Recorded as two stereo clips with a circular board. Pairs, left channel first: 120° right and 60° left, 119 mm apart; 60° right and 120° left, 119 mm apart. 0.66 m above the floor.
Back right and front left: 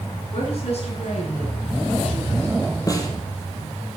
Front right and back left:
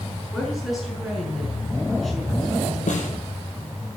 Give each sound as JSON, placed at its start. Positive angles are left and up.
{"t": 0.3, "sound": "a woman speaking", "azimuth_deg": -150, "distance_m": 8.5}
{"t": 2.9, "sound": "a snare drum", "azimuth_deg": -60, "distance_m": 4.0}